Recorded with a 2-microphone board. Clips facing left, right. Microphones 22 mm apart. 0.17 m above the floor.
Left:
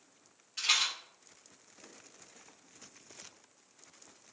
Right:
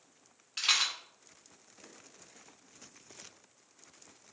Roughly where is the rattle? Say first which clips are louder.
Right 1 dB; right.